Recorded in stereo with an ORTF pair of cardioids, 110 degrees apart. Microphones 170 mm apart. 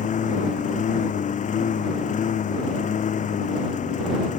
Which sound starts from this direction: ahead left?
A lawn mower, at 0.0 s.